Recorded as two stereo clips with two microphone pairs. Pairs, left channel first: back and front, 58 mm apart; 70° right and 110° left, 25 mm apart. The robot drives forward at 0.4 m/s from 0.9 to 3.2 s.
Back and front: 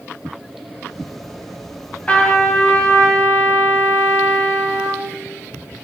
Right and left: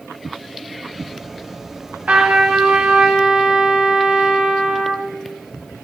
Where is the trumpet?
115° left, 1.9 m; by 5.1 s 125° left, 2 m.